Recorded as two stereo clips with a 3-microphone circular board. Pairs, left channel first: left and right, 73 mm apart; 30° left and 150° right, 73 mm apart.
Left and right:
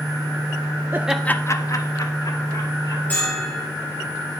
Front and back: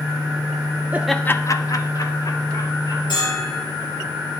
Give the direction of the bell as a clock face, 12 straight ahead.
11 o'clock.